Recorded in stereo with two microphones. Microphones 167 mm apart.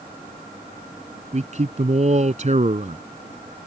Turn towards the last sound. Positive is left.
turn(degrees=-45)  # may be behind; listen again after turning